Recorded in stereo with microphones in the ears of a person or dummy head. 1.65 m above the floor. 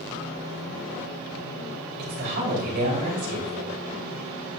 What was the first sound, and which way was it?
A woman speaking, 50° right (ahead or behind).